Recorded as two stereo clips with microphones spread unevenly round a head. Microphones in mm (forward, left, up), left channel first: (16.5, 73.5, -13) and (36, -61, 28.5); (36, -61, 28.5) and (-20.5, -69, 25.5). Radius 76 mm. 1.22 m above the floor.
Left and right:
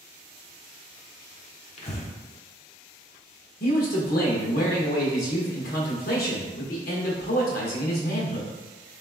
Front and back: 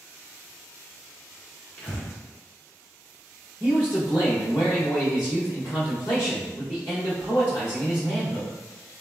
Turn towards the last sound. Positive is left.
turn(degrees=85)